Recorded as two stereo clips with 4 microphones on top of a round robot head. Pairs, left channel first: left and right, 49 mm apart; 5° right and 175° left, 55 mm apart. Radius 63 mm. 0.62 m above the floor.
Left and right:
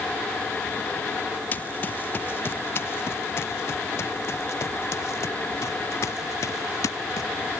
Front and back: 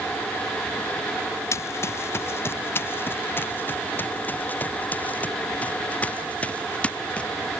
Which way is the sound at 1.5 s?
30° left.